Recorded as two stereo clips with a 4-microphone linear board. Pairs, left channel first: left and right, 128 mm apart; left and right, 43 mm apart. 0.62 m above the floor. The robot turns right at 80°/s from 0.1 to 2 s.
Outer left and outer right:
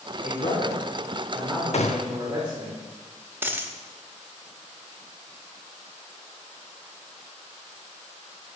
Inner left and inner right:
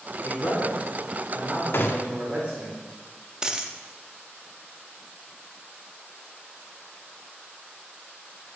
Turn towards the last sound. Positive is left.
turn(degrees=-15)  # may be behind; listen again after turning